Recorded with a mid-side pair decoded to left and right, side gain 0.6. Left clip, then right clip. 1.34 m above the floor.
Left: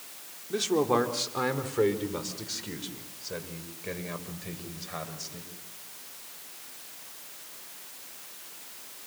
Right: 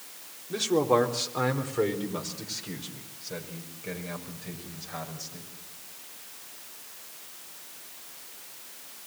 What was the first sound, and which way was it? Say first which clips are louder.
A man speaking: right 2 dB; straight ahead.